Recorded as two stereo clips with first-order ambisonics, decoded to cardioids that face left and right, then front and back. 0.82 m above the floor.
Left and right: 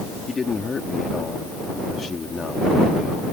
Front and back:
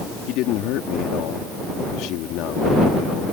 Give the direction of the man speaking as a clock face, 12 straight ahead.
11 o'clock.